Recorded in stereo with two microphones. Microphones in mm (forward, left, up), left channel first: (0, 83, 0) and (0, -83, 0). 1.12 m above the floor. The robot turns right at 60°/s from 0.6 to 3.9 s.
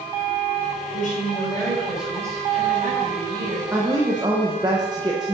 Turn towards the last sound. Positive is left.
turn(degrees=-25)  # may be behind; listen again after turning